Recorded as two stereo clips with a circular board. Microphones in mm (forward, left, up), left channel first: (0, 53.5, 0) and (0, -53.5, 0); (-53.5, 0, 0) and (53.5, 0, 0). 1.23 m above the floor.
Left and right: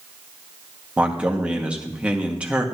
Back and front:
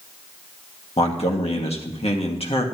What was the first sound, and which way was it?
A man speaking, 170° right.